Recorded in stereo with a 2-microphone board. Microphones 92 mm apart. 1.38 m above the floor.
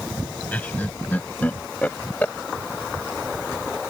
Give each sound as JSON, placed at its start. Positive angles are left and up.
{"t": 0.5, "sound": "laughter", "side_deg": 20}